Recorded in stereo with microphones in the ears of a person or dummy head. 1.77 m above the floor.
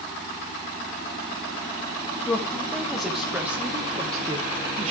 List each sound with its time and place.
2.2 s a woman speaking: 5° left (ahead or behind), 1.9 m; by 4.9 s 35° right (ahead or behind), 1.1 m